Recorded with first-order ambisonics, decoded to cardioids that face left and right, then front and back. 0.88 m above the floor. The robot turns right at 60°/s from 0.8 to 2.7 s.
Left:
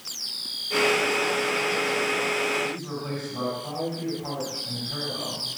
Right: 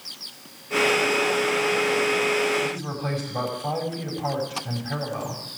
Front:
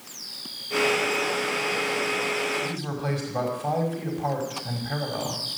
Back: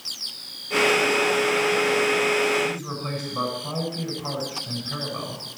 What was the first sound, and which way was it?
A man speaking, 45° right.